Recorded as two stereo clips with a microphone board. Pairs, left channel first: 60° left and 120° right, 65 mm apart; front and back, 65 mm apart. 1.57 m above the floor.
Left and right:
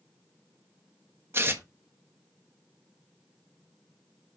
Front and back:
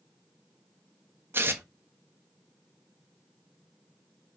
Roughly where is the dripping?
I don't hear dripping.